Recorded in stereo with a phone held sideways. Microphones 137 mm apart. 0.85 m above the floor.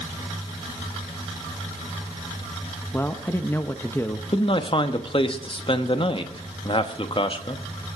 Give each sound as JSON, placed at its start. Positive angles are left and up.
{"t": 2.9, "sound": "a man speaking", "side_deg": 20, "distance_m": 0.6}
{"t": 4.3, "sound": "a man speaking", "side_deg": 40, "distance_m": 0.9}